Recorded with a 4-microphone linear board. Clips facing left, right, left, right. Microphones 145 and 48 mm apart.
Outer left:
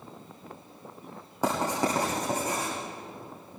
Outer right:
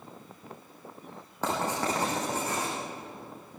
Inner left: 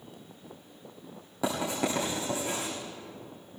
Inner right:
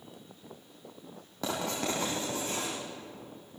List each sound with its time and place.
1.4 s writing: 10° left (ahead or behind), 8 m